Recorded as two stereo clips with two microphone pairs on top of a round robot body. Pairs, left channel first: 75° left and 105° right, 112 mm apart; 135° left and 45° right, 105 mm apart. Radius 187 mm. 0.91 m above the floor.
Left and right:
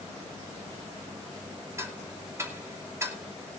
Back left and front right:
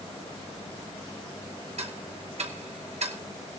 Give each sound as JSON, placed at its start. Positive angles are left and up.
{"t": 1.8, "sound": "ticking", "azimuth_deg": -40, "distance_m": 2.5}